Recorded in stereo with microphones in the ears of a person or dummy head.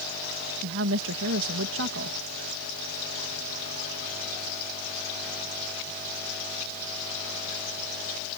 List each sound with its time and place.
0.6 s a woman speaking: 80° right